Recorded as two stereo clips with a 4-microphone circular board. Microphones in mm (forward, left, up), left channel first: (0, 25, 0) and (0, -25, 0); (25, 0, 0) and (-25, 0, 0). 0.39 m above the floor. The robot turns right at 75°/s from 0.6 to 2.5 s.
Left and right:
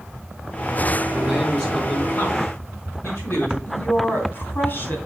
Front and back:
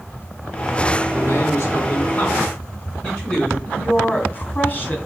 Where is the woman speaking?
55° left, 3 m.